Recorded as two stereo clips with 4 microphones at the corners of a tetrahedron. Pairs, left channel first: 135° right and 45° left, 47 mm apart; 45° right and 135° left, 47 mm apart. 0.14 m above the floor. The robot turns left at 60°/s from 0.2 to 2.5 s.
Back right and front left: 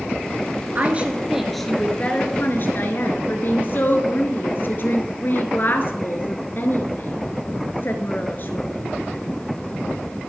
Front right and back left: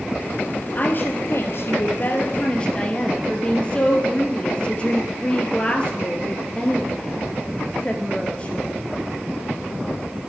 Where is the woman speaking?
Straight ahead, 2 m; by 8.8 s 105° right, 2 m.